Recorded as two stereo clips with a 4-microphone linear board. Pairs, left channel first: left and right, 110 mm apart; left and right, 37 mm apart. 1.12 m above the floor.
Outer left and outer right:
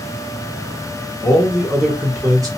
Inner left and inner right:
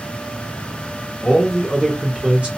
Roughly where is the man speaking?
Centre.